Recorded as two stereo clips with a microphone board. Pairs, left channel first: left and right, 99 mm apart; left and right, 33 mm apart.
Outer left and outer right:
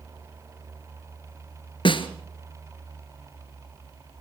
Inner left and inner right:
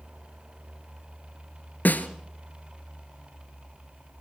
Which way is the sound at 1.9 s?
60° left (ahead or behind).